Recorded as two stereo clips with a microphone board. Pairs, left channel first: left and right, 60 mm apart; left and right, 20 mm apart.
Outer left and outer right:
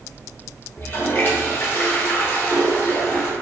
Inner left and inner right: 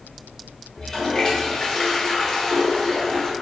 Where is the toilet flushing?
35° left (ahead or behind), 0.8 m.